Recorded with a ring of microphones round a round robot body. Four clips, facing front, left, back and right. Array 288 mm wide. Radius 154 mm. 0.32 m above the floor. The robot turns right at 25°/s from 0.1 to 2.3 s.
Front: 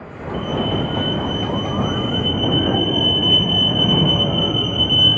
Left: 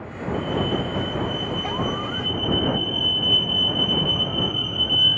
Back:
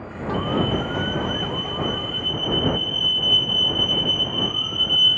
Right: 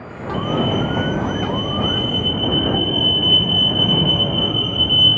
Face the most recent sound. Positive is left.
turn(degrees=-25)